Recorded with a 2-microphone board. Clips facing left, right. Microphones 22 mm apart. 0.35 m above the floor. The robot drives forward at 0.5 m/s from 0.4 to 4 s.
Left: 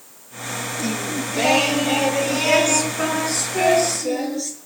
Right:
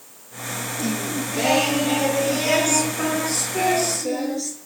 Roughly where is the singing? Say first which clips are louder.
Even; centre.